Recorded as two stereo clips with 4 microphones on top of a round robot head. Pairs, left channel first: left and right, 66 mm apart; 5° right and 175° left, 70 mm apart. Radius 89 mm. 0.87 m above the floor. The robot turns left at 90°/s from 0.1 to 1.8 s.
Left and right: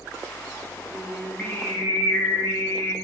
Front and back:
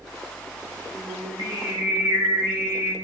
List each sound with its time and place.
0.9 s singing: 155° right, 0.8 m; by 2.9 s 125° left, 0.8 m